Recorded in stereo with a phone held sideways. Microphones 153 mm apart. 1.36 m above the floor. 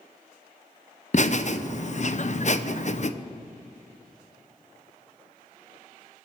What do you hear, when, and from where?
1.1 s laughter: 50° left (ahead or behind), 0.7 m